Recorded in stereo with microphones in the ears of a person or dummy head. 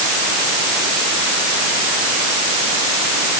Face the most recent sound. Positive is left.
No sound to turn to.